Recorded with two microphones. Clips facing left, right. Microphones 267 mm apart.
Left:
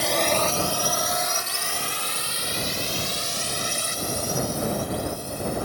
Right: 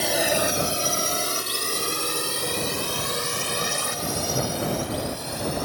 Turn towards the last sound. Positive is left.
turn(degrees=-75)  # may be behind; listen again after turning